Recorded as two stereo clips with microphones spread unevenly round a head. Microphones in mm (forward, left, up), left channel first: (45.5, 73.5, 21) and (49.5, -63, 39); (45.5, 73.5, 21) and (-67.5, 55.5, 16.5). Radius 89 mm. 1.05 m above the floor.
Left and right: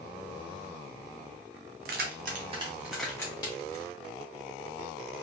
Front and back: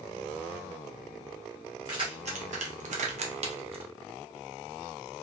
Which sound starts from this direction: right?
Keys jangling, at 1.9 s.